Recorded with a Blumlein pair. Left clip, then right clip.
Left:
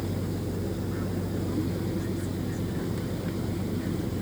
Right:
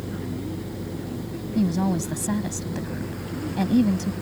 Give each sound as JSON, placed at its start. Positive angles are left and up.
{"t": 1.6, "sound": "a woman speaking", "azimuth_deg": -50}